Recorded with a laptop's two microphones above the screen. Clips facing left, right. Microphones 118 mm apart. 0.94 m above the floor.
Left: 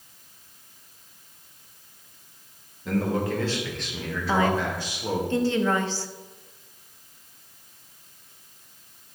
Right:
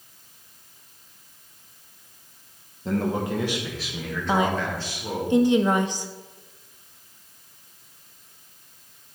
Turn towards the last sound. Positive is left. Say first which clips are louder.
# even
turn(degrees=-15)  # may be behind; listen again after turning